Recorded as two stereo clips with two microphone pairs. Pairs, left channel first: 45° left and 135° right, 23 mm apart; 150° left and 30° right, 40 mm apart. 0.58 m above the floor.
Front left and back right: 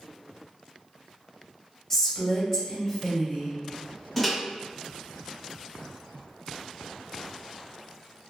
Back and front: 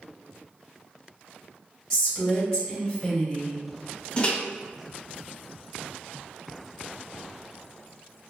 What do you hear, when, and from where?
1.9 s a woman speaking: 85° left, 1.0 m
4.2 s a microwave: 120° left, 0.6 m